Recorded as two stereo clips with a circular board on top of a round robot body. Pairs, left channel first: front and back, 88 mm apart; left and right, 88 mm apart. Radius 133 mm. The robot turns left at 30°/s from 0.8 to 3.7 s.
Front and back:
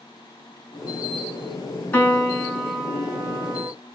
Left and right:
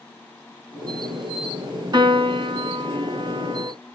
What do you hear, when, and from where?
1.9 s a piano: 65° right, 1.4 m; by 3.7 s 120° right, 1.4 m